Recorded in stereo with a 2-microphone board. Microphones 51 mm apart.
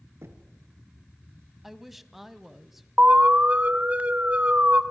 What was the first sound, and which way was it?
Knocking, 55° right (ahead or behind).